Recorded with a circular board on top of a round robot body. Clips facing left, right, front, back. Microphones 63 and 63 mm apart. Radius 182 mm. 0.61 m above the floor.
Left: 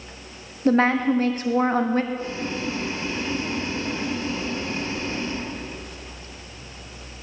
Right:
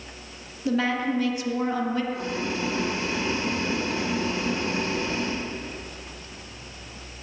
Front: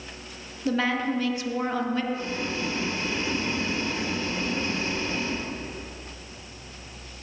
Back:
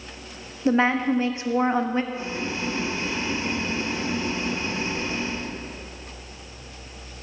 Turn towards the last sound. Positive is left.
turn(degrees=-110)